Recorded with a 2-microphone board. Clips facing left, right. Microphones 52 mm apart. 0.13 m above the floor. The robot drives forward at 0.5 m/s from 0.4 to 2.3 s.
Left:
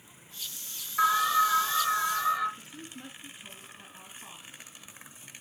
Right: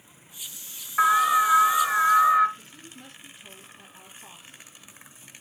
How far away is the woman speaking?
About 1.4 m.